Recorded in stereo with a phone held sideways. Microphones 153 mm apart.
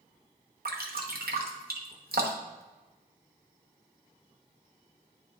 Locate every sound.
0.7 s dripping: 85° right, 1.0 m